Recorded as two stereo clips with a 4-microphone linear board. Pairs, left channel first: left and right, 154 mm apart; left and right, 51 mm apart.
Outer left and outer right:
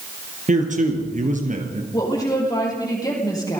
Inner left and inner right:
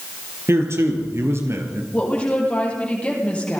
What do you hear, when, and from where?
0.5 s a man speaking: 55° right (ahead or behind), 4.5 m
1.9 s a woman speaking: 25° left (ahead or behind), 7 m